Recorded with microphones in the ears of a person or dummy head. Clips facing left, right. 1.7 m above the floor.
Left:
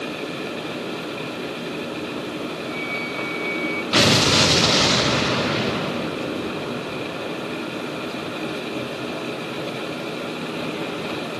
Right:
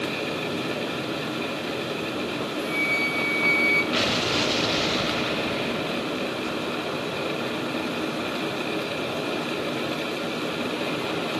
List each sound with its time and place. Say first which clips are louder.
2.6 s a flute: right 1 dB; 40° right (ahead or behind), 0.9 m
3.9 s an explosion: left 6 dB; 70° left (ahead or behind), 0.8 m